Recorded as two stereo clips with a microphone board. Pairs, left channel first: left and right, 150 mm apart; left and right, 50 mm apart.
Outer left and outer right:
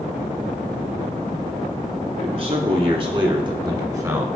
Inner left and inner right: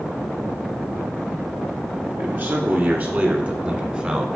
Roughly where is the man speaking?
Right.